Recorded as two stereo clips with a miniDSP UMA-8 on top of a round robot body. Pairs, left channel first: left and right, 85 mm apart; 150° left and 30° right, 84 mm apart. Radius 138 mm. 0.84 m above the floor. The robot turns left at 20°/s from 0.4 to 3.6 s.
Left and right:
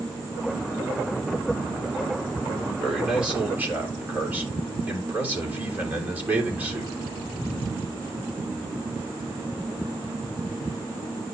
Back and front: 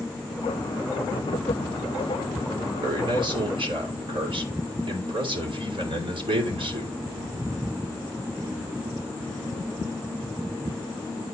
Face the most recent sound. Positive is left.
turn(degrees=-20)